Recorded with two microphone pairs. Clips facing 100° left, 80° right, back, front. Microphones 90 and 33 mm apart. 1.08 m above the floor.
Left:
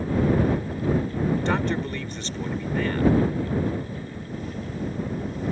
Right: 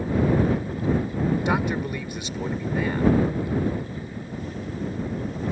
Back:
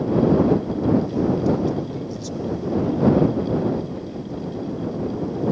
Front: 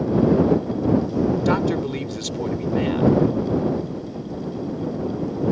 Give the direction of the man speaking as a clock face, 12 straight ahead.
12 o'clock.